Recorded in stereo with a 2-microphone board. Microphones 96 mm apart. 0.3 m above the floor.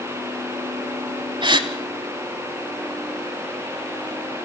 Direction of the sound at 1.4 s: 55° right (ahead or behind).